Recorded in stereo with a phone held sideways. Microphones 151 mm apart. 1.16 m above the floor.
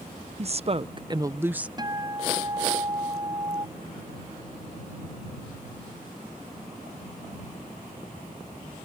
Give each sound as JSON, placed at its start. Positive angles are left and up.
{"t": 0.4, "sound": "a woman speaking", "side_deg": -45}
{"t": 1.8, "sound": "a guitar", "side_deg": -30}